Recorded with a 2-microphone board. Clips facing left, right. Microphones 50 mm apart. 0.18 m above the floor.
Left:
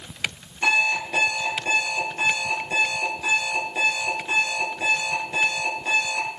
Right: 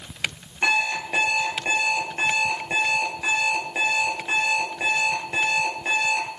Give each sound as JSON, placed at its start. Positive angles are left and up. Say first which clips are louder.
{"t": 0.6, "sound": "an alarm clock", "louder": "left 1 dB", "side_deg": -20, "distance_m": 2.5}